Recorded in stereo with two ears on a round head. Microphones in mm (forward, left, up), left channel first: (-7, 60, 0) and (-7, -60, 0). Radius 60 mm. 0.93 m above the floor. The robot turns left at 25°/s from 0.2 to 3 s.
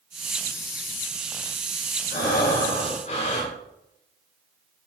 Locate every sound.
2.1 s breathing: 70° left (ahead or behind), 4.5 m; by 3.5 s 50° left (ahead or behind), 4.5 m